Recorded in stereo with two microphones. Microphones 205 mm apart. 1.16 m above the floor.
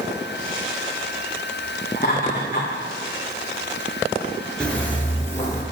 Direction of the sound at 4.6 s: 5° left (ahead or behind).